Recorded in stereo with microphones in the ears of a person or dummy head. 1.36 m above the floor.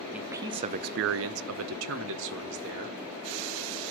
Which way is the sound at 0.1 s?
10° right (ahead or behind).